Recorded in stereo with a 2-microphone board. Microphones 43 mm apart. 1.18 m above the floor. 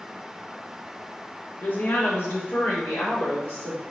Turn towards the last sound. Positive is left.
turn(degrees=70)  # may be behind; listen again after turning